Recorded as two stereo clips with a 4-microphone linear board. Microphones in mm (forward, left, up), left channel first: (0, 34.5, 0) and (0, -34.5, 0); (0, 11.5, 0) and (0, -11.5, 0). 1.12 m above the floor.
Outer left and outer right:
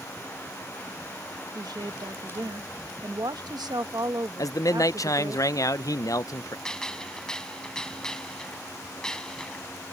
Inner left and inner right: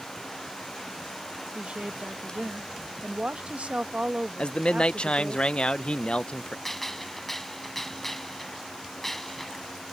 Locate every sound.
1.6 s a woman speaking: 80° right
4.4 s a man speaking: 55° left (ahead or behind)
6.7 s a gunshot: 10° left (ahead or behind)